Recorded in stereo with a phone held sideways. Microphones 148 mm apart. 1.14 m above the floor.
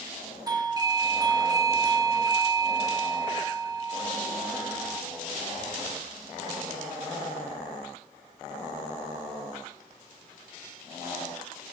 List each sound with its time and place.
0.5 s a doorbell: 25° right (ahead or behind), 0.7 m